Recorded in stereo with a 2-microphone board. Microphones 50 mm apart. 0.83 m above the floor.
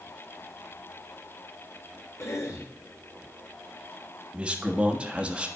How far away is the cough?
About 3 m.